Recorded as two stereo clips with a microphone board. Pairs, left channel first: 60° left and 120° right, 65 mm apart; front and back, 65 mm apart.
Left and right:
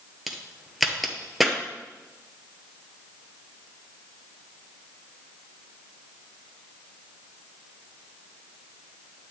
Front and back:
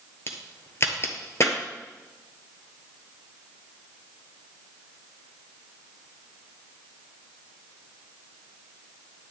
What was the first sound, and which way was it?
A crack, 30° right.